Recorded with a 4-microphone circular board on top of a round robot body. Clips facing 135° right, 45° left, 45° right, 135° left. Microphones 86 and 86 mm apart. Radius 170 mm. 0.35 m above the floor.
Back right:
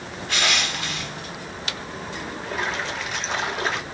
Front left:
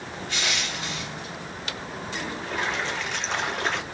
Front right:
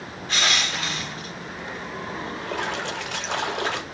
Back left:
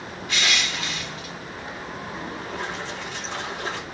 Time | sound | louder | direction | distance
0.3 | crushing | back right 6 dB, front right 1 dB | 100° right | 0.9 m
2.4 | a splash | back right 2 dB, front right 6 dB | 50° right | 1.1 m